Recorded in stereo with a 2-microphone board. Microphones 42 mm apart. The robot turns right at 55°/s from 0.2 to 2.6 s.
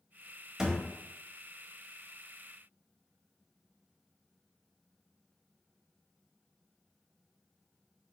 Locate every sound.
0.6 s a thud: 15° right (ahead or behind), 1.1 m; by 0.8 s 25° right (ahead or behind), 1.1 m